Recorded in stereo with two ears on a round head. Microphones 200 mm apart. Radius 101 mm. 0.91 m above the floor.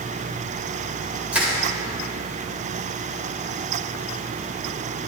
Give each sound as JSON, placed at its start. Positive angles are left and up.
{"t": 1.3, "sound": "crushing", "side_deg": -10, "distance_m": 3.0}